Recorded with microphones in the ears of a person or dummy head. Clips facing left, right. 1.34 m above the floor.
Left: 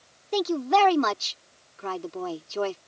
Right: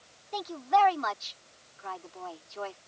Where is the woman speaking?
70° left (ahead or behind).